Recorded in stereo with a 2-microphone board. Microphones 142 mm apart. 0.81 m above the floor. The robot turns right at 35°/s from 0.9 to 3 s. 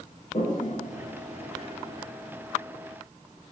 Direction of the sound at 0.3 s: 60° left (ahead or behind).